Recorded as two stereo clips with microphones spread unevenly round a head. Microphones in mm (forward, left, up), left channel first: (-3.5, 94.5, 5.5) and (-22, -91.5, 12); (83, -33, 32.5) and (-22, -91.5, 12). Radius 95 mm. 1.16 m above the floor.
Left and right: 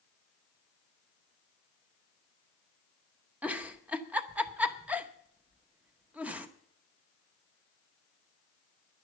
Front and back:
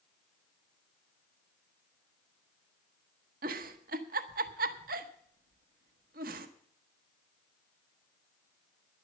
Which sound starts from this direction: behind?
A giggle, at 3.4 s.